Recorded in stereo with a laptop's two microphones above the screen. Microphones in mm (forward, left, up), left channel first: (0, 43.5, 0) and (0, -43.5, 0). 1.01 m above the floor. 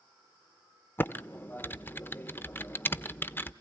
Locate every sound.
1.0 s typing on a keyboard: 25° left (ahead or behind), 0.8 m